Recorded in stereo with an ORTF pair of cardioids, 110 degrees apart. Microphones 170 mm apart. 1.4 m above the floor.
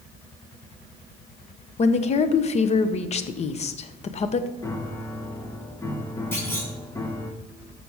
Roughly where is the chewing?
I don't hear chewing.